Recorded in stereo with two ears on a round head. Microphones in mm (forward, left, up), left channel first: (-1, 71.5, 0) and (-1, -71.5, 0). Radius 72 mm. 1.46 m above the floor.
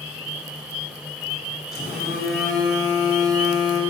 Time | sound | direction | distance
1.7 | a phone buzzing | centre (ahead or behind) | 1.7 m